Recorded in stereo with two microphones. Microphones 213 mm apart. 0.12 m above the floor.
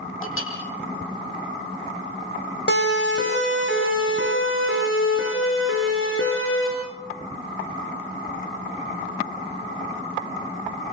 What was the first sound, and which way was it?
A clink, 75° left (ahead or behind).